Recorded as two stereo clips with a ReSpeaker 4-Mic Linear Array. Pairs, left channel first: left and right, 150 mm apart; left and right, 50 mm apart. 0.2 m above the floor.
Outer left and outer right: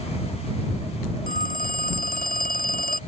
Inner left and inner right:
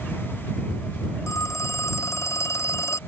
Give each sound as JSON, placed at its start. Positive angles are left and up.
{"t": 1.3, "sound": "a phone ringing", "side_deg": 70}